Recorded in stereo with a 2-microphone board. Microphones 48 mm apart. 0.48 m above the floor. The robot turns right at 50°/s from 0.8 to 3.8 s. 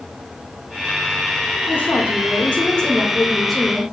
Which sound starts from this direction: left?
A woman speaking, at 1.7 s.